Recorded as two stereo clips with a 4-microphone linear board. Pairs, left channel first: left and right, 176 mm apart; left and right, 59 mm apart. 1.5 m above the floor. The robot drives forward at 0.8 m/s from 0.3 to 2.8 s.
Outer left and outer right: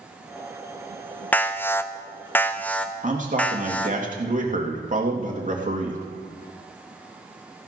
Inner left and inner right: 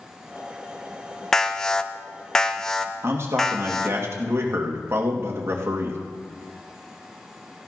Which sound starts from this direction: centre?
An alarm, at 1.3 s.